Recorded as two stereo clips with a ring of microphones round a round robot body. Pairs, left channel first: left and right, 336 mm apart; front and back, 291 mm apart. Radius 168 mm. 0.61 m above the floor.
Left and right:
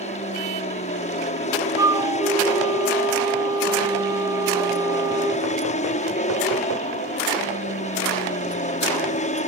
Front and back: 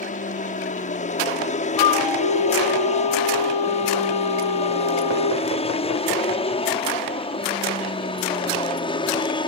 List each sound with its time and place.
0.0 s an aircraft: 35° left; by 9.5 s 50° left
1.8 s a flute: 10° right